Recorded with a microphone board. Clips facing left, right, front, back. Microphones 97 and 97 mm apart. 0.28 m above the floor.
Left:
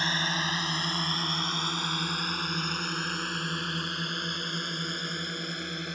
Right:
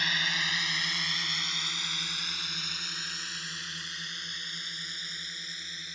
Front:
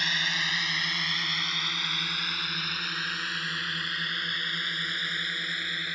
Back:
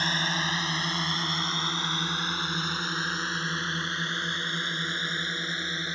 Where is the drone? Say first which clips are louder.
Left 3 dB, back 3 dB; 135° left; by 6.0 s 115° left.